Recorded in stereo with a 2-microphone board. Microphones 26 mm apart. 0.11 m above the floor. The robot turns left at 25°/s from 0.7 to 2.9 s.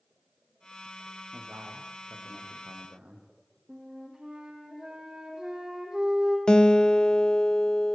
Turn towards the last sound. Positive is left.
turn(degrees=35)  # may be behind; listen again after turning